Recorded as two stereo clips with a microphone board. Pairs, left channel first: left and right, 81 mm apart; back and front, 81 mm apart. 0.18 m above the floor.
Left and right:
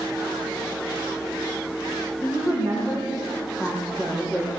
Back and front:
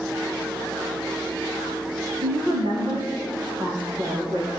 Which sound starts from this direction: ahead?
A woman speaking, at 2.2 s.